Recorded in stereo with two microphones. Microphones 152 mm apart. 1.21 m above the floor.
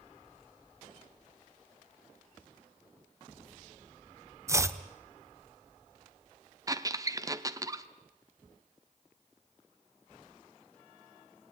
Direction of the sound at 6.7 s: 25° right (ahead or behind).